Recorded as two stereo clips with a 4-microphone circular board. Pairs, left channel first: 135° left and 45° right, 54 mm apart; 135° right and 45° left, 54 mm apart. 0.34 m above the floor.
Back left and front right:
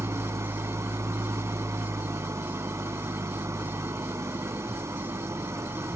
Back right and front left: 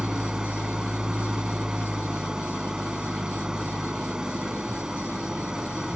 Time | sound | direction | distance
0.0 | an engine running | 30° right | 0.8 m